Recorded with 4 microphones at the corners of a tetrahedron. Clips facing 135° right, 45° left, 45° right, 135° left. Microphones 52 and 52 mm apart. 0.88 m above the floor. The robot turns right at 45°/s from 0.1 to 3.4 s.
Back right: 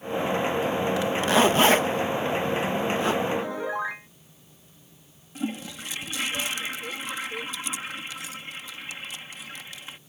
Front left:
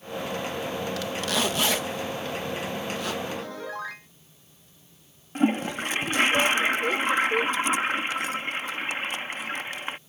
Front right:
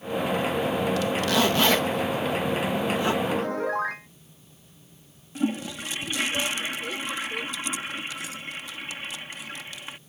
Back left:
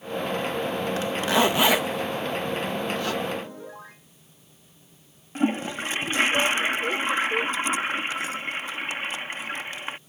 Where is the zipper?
170° left; by 3.1 s 90° right.